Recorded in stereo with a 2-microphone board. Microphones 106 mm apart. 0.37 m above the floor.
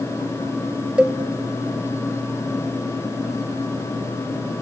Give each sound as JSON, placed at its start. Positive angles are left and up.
{"t": 1.0, "sound": "a cowbell", "side_deg": -10, "distance_m": 0.6}